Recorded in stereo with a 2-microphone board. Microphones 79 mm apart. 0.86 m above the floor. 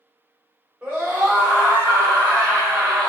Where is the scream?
25° right (ahead or behind), 1.3 m.